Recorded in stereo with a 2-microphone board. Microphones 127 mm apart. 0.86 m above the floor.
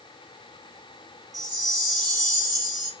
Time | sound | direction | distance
1.3 | a chime | 30° right (ahead or behind) | 0.8 m